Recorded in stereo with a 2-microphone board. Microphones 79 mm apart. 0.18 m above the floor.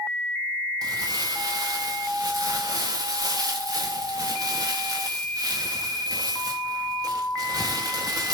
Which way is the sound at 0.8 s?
50° right (ahead or behind).